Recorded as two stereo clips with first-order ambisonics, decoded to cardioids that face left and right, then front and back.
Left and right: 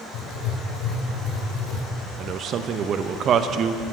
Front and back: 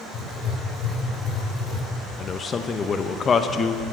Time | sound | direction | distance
0.1 | writing | 60° left | 1.8 m
2.2 | a man speaking | 55° right | 0.5 m